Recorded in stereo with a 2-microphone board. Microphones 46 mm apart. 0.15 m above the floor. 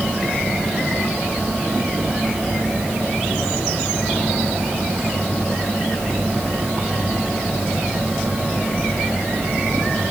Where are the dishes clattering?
No dishes clattering in this recording.